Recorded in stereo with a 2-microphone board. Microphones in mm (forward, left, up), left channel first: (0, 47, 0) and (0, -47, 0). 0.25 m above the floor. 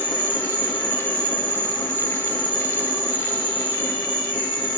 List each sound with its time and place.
0.0 s an insect: 60° left (ahead or behind), 1.8 m